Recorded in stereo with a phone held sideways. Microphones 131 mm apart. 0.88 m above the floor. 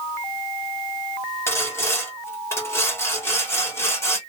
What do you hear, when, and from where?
1.5 s sawing: 20° left (ahead or behind), 1.0 m